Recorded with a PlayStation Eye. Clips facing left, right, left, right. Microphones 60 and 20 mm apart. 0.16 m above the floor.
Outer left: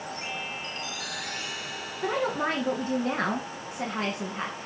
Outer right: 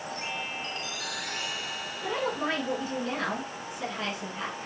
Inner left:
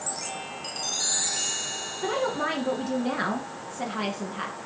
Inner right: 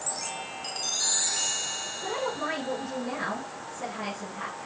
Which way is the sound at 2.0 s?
50° left (ahead or behind).